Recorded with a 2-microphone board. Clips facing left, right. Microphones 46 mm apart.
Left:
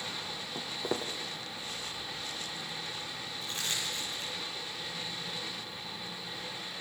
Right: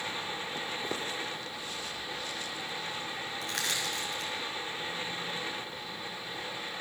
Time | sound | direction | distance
0.6 | footsteps | 10° left (ahead or behind) | 2 m
3.4 | crushing | 75° right (ahead or behind) | 7 m